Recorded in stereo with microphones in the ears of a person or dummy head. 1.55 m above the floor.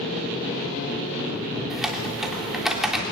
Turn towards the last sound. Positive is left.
turn(degrees=0)  # may be behind; listen again after turning